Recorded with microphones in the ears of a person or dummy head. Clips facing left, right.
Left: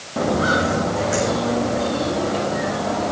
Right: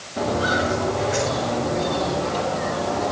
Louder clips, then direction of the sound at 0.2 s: Left 3 dB; 55° left (ahead or behind).